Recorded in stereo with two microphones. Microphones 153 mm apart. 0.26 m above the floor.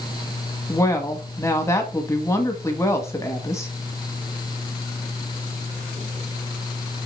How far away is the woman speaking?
About 1.7 m.